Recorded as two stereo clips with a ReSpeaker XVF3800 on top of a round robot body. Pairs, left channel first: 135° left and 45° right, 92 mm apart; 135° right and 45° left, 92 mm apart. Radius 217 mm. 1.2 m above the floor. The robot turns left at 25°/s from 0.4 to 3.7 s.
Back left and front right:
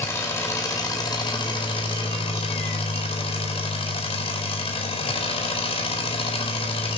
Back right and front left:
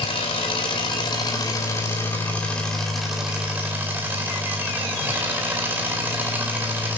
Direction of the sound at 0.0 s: 160° right.